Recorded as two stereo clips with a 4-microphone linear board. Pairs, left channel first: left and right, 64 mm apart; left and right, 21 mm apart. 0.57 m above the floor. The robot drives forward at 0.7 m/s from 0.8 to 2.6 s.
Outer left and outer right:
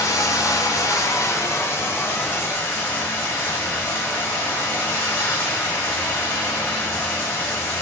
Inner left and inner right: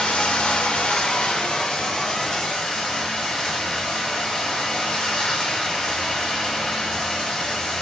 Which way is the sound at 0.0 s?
70° left (ahead or behind).